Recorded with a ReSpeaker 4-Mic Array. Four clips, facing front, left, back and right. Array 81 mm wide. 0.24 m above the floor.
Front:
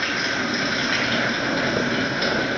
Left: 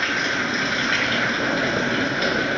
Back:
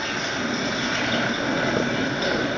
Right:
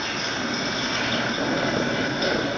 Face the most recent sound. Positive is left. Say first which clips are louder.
# left 5 dB, front 2 dB
turn(degrees=65)